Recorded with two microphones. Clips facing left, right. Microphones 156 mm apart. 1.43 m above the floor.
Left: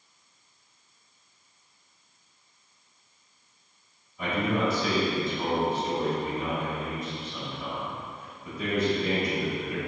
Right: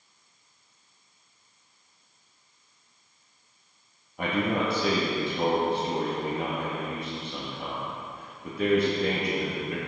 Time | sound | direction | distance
4.2 | a man speaking | 65° right (ahead or behind) | 2 m